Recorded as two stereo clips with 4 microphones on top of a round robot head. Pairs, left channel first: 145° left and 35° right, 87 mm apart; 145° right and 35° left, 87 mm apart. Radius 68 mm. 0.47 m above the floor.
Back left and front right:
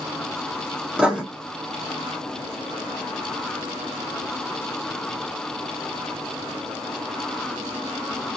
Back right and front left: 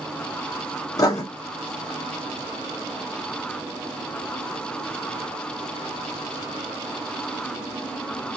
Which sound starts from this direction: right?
Writing, at 1.0 s.